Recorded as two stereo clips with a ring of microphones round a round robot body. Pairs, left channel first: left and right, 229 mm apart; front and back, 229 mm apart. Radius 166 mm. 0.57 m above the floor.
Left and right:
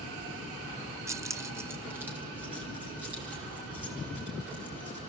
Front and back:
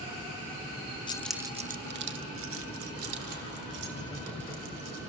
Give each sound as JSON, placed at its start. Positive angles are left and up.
{"t": 1.1, "sound": "keys jangling", "azimuth_deg": -30, "distance_m": 0.5}